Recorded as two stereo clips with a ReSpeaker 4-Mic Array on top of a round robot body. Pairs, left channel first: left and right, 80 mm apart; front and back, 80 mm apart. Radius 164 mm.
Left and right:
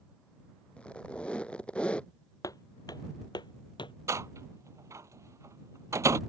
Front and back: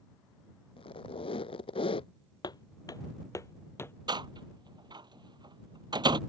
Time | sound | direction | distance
0.8 | a squeak | 15° left | ?
2.4 | footsteps | 40° left | ?
4.1 | a door slam | 145° right | ?